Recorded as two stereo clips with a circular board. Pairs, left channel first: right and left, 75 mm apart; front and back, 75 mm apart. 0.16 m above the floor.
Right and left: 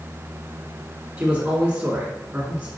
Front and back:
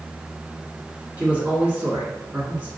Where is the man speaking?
140° left, 1.7 m.